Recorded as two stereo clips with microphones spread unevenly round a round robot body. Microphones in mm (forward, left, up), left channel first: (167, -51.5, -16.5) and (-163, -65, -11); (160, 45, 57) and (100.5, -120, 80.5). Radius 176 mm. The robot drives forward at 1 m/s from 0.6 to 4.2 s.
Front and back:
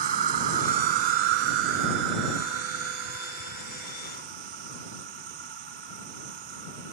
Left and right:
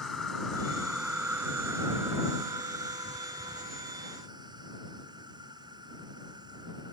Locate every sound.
0.0 s an insect: 160° left; by 6.9 s 175° left